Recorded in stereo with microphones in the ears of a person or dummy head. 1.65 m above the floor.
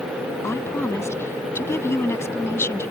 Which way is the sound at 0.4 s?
10° left (ahead or behind).